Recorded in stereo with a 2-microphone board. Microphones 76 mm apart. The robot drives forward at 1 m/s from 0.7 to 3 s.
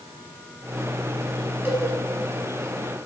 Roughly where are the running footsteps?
I don't hear running footsteps.